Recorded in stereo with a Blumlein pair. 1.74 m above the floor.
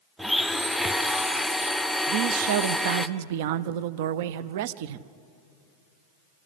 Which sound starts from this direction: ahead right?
A man speaking, at 2.1 s.